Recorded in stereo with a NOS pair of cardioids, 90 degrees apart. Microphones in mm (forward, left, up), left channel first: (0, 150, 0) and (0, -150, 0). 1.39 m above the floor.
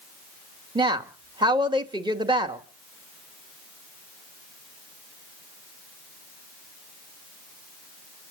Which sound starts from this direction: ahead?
A woman speaking, at 0.8 s.